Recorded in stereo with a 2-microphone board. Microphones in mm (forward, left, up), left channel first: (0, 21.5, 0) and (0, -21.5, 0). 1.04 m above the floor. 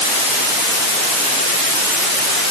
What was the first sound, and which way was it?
Only background noise.